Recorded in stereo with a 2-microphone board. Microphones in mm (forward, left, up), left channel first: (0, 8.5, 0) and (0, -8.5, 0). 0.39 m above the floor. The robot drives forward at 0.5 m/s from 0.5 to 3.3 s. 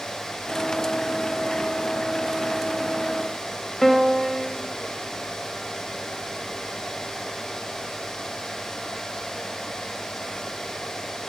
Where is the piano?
30° left (ahead or behind), 1.2 m.